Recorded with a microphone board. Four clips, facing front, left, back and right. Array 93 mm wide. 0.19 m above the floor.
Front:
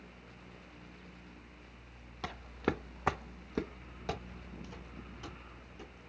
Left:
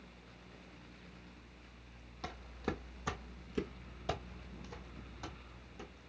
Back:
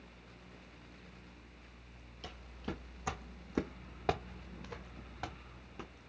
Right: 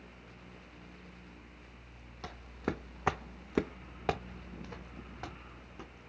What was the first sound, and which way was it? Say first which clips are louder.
Footsteps: right 3 dB, front 9 dB; 5° right.